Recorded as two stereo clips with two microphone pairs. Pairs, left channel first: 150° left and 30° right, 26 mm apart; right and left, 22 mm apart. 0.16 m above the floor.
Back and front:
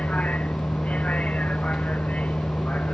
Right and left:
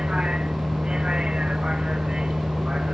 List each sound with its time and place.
0.0 s a vehicle: 135° left